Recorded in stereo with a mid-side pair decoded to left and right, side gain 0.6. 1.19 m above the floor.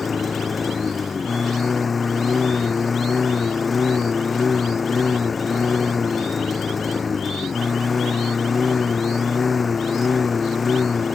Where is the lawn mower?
30° left.